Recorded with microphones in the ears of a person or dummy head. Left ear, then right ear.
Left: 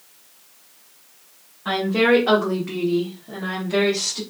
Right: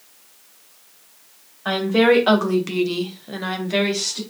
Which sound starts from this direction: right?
A woman speaking, at 1.6 s.